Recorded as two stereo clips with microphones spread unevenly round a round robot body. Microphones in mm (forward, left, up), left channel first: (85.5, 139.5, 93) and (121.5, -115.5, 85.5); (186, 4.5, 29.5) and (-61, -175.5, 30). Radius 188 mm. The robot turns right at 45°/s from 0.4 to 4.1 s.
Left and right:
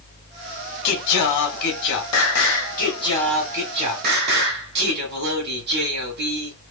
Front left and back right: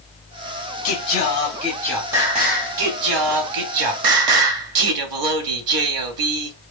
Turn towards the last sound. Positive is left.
turn(degrees=-140)